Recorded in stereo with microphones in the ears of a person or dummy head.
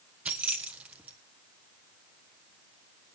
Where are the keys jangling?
5° right (ahead or behind), 1.0 m.